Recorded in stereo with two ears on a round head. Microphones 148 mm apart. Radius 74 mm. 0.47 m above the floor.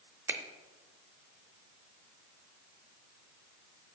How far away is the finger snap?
About 0.5 m.